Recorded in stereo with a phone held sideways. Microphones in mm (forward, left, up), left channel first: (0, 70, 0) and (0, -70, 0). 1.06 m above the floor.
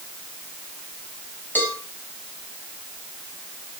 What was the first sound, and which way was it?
A cowbell, 15° left (ahead or behind).